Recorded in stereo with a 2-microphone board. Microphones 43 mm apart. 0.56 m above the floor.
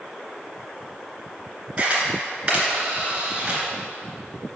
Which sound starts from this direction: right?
A camera shutter, at 1.8 s.